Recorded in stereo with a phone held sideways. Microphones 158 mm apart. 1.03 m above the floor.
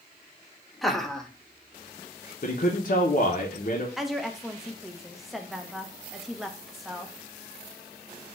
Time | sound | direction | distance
0.8 | laughter | centre (ahead or behind) | 0.7 m
2.4 | a man speaking | 55° left (ahead or behind) | 0.6 m
4.0 | a woman speaking | centre (ahead or behind) | 0.7 m